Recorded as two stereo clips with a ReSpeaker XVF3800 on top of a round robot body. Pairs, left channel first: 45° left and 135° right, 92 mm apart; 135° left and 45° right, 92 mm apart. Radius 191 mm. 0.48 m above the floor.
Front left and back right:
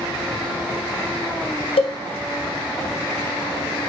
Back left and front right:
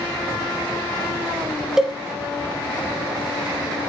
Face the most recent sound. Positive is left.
turn(degrees=40)